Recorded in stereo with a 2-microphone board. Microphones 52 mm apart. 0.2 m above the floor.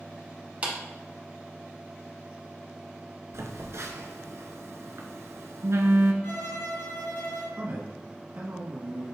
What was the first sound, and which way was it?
A clap, 25° right (ahead or behind).